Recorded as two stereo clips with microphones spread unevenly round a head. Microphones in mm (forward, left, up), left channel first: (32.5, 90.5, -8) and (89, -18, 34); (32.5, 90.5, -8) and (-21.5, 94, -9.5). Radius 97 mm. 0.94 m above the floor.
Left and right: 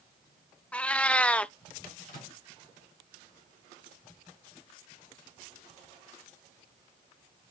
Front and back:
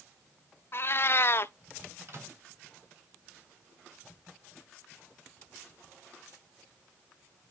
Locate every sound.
0.7 s a cat meowing: 25° left, 0.6 m
2.1 s a microwave: 135° left, 4 m